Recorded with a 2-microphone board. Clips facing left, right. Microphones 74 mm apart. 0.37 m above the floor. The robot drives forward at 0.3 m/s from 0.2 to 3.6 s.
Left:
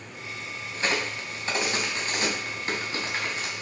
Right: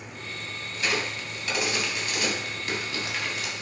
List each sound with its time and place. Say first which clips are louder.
0.7 s a crack: left 1 dB; 35° left (ahead or behind), 3 m; by 3.6 s 25° left (ahead or behind), 3.5 m